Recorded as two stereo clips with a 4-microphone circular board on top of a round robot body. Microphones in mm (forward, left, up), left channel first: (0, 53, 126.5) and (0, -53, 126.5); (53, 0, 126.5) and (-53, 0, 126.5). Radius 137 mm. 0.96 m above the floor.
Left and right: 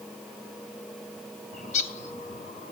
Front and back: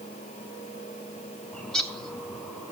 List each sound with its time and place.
1.5 s a bird: 85° left, 0.7 m